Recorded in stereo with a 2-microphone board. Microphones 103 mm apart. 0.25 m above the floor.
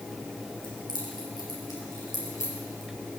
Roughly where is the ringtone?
I don't hear a ringtone.